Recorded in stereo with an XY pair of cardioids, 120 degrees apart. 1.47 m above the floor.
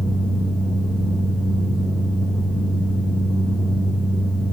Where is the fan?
25° left, 0.9 m.